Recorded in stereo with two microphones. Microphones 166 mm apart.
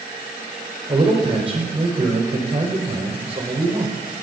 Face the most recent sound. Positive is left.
turn(degrees=-40)  # may be behind; listen again after turning